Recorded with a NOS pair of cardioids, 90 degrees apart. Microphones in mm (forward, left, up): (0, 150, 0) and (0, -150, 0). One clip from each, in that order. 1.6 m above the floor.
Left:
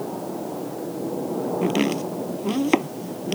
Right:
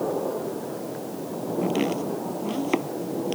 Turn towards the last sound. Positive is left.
turn(degrees=40)